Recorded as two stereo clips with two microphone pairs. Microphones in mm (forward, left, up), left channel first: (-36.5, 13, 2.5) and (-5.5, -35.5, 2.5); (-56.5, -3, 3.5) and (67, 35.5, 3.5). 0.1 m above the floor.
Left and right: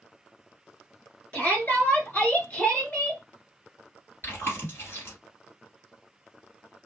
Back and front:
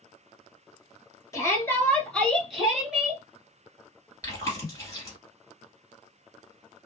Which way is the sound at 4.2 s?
145° left.